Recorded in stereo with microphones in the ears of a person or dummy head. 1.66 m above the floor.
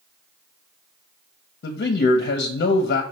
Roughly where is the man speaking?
Left.